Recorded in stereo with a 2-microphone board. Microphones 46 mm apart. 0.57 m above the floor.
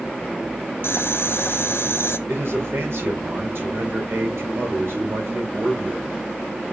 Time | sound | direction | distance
0.8 | boiling | 70° left (ahead or behind) | 1.0 m
2.3 | a man speaking | 65° right (ahead or behind) | 3.5 m